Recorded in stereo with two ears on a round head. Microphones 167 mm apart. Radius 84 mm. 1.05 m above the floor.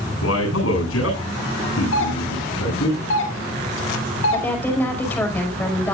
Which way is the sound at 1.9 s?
80° left.